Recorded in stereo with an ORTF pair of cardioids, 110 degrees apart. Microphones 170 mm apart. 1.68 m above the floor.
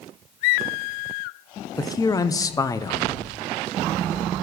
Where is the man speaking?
20° left, 0.7 m.